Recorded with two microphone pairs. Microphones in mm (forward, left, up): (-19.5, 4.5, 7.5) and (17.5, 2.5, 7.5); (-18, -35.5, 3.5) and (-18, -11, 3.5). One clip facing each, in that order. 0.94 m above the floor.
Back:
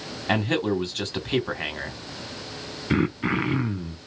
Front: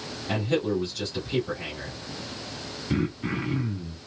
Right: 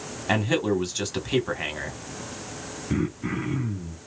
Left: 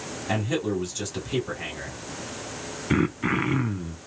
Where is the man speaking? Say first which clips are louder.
Back 2 dB, right 3 dB; 145° right, 1.8 m.